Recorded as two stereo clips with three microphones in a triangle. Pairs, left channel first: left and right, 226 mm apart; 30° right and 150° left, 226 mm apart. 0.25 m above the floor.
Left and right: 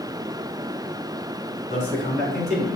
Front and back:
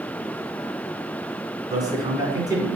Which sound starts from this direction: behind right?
A man speaking, at 1.7 s.